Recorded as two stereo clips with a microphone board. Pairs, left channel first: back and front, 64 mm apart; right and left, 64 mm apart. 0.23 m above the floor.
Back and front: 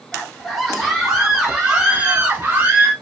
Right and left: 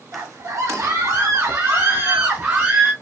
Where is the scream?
95° left, 2 m; by 2.9 s 35° left, 1.8 m.